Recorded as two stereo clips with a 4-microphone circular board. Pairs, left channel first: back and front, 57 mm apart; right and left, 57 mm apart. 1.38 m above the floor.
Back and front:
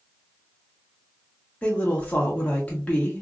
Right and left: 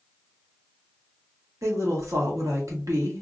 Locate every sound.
1.6 s a woman speaking: 110° left, 1.3 m